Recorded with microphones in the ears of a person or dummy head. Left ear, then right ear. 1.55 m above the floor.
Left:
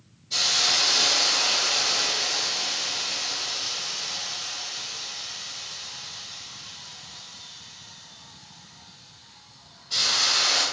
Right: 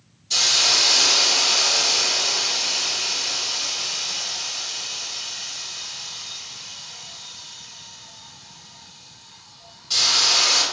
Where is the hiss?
65° right (ahead or behind), 1.2 m.